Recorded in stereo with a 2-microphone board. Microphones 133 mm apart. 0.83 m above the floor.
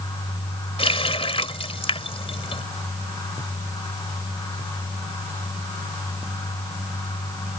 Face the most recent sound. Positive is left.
turn(degrees=45)  # may be behind; listen again after turning